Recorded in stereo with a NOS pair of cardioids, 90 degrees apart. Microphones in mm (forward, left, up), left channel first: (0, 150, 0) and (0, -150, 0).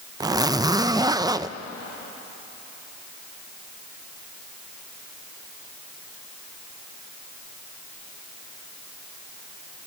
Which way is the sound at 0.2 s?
15° right.